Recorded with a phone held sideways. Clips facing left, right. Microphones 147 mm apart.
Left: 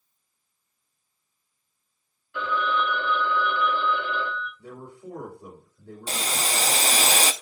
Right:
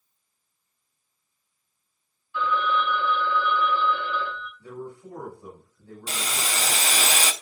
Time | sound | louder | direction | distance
2.3 | a phone ringing | right 1 dB | 65° left (ahead or behind) | 3.5 m
4.6 | a man speaking | right 3 dB | 65° left (ahead or behind) | 5.5 m
6.1 | boiling | left 2 dB | 35° left (ahead or behind) | 0.8 m